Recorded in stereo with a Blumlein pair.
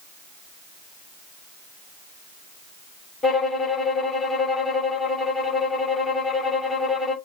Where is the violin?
5° left, 6 m.